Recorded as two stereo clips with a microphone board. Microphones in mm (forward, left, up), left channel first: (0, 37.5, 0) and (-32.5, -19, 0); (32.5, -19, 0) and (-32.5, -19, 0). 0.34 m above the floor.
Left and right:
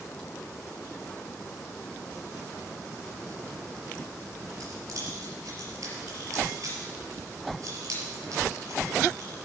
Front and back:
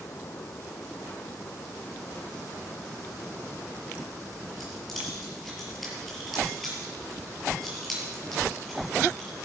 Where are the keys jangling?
85° right, 5.5 m.